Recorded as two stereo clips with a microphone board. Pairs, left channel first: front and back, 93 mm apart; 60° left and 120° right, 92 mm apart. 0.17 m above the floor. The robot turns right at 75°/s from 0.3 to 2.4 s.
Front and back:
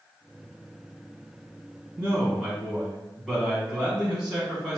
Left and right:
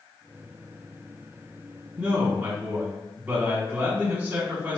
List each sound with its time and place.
2.0 s a man speaking: 140° right, 1.4 m; by 4.8 s 110° right, 1.4 m